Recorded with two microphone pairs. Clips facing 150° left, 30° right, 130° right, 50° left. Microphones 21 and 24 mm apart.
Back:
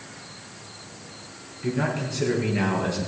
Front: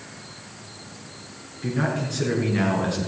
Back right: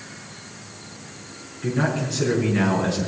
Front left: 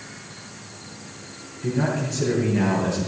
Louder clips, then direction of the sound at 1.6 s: Front 1 dB, back right 1 dB; 85° right.